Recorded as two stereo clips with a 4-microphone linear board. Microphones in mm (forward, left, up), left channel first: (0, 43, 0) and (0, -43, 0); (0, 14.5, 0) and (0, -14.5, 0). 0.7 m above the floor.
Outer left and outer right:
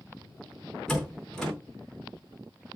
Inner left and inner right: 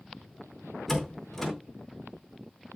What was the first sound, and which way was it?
A door slam, 5° left (ahead or behind).